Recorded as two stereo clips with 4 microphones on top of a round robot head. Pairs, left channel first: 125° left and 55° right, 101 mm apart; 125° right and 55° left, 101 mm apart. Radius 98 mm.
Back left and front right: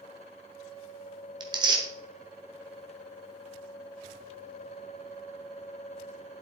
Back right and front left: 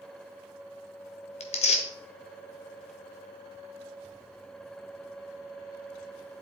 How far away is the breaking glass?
No breaking glass in this recording.